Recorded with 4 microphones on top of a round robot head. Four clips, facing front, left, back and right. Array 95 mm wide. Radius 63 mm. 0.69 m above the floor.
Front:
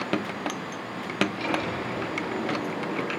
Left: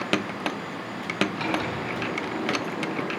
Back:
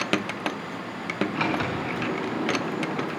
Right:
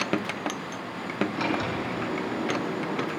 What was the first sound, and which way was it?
A sliding door, 165° right.